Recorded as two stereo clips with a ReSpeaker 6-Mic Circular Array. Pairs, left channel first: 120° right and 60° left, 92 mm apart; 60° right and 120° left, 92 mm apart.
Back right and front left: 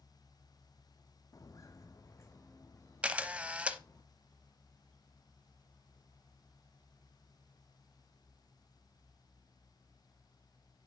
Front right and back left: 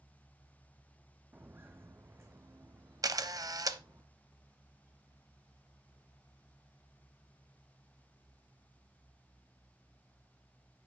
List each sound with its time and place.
1.3 s footsteps: 170° right, 0.6 m; by 4.0 s 175° left, 2 m
3.0 s a camera shutter: 130° left, 0.6 m